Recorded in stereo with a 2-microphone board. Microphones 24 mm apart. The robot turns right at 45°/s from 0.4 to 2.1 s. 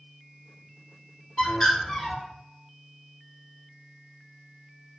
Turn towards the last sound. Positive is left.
turn(degrees=160)